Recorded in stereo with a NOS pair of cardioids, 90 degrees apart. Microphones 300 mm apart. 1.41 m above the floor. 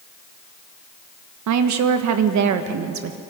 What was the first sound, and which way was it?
A woman speaking, 65° right.